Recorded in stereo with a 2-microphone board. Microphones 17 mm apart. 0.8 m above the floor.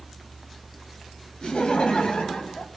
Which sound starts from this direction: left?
Laughter, at 1.4 s.